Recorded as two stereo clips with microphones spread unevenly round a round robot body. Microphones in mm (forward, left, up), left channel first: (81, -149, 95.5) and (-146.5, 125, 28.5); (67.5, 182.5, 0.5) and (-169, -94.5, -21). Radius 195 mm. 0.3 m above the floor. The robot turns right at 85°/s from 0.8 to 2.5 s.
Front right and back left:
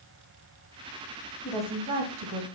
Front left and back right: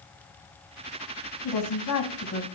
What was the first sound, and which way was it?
A woman speaking, 30° left.